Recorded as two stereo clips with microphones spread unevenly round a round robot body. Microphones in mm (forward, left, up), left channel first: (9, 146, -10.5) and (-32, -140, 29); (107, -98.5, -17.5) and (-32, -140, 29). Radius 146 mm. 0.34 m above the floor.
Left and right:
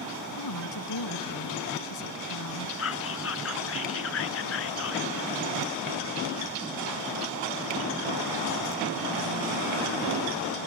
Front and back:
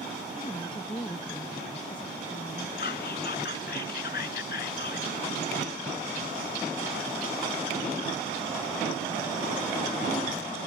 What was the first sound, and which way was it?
A woman speaking, 95° left.